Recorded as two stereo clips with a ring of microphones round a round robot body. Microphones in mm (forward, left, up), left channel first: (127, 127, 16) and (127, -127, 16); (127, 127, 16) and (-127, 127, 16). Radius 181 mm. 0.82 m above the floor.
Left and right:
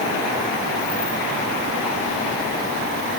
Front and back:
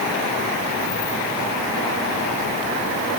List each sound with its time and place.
Only background noise.